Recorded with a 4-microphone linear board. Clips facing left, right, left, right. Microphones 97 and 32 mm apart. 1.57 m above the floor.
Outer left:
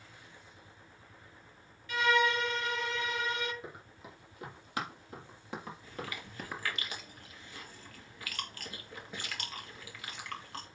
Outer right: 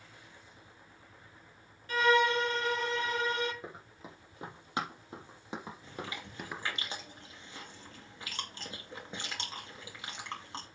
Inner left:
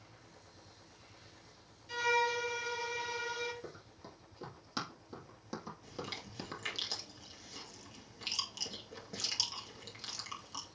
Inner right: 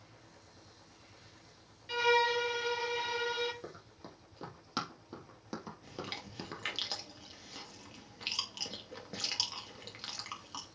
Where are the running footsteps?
30° right (ahead or behind), 4.5 m; by 6.8 s centre (ahead or behind), 1.9 m.